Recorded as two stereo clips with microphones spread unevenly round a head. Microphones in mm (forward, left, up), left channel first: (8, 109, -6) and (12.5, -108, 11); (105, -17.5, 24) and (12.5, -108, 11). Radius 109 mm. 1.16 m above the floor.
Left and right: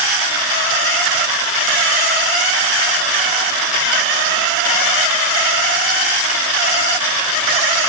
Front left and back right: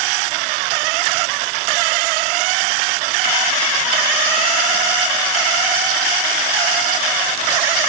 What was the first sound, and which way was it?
Only background noise.